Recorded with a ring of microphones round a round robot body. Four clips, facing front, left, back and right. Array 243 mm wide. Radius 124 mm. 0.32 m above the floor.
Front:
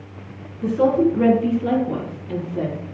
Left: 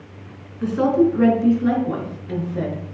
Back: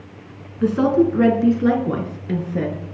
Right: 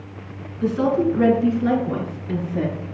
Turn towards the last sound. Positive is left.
turn(degrees=-170)